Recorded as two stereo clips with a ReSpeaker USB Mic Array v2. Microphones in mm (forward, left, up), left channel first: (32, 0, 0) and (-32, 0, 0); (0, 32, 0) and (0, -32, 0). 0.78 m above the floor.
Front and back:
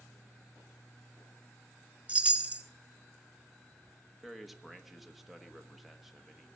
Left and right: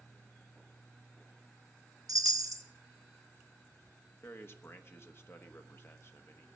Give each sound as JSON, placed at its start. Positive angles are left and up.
{"t": 2.1, "sound": "a chime", "azimuth_deg": -110, "distance_m": 1.2}
{"t": 4.2, "sound": "a man speaking", "azimuth_deg": 90, "distance_m": 1.2}